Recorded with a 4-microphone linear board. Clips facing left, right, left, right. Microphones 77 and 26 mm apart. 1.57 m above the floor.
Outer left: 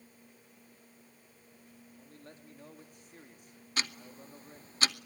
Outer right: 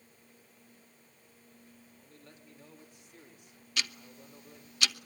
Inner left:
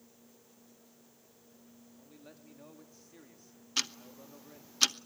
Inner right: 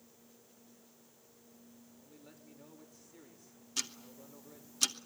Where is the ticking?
35° left (ahead or behind), 0.9 m.